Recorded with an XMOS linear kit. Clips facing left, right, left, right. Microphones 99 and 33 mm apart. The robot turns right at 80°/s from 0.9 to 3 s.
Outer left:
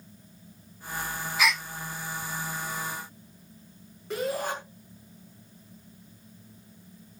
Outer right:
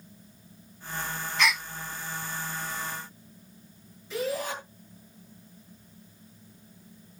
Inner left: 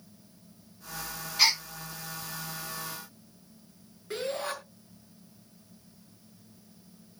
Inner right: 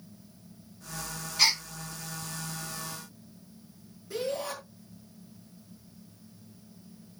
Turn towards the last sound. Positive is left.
turn(degrees=60)  # may be behind; listen again after turning